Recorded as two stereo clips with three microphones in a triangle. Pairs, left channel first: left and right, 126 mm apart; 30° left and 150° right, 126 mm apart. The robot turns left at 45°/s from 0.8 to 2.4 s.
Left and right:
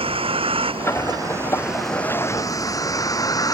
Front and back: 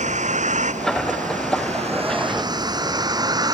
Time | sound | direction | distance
0.0 | a vehicle | 130° right | ?